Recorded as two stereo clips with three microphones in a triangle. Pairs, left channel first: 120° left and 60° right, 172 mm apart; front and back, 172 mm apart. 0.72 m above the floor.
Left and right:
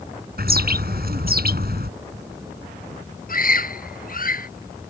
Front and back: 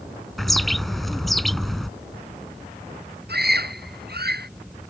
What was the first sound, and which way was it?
A bird, 90° right.